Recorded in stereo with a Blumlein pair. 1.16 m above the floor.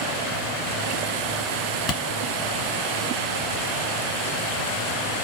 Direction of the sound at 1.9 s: 25° left.